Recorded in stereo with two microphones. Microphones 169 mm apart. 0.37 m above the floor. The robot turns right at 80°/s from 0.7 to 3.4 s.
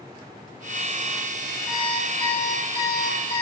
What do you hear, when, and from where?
1.7 s an alarm clock: 5° right, 6 m; by 3.4 s 130° left, 6 m